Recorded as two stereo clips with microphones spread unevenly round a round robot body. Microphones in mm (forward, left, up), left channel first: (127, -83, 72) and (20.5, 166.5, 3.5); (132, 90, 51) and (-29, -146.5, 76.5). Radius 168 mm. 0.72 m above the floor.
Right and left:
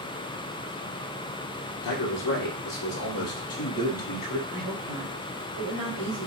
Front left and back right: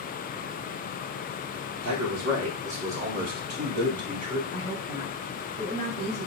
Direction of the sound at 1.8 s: 95° right.